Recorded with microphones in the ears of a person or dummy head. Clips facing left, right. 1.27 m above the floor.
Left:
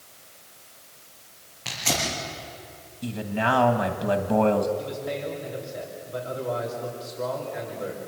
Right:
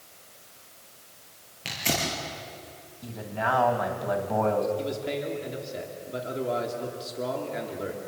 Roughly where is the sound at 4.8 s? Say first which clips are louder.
Right 1 dB; right.